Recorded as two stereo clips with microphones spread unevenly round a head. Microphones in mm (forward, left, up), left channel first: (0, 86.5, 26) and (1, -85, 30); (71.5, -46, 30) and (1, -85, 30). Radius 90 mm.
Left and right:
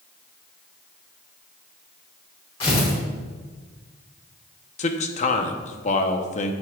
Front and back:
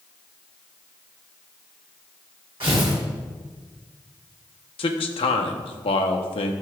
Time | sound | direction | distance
2.6 | tearing paper | 150° left | 3.5 m
4.8 | a man speaking | 40° left | 0.9 m